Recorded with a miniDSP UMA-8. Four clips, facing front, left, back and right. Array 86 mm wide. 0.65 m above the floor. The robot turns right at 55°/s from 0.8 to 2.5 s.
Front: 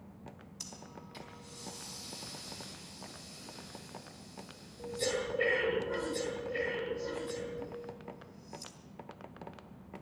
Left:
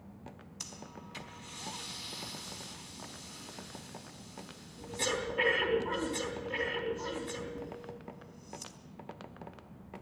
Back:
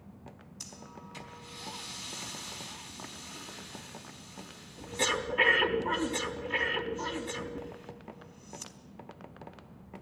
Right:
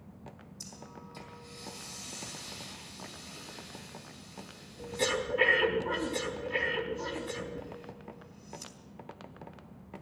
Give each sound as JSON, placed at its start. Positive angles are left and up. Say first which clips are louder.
{"t": 0.6, "sound": "breathing", "louder": "even, back 2 dB", "azimuth_deg": 90, "distance_m": 4.0}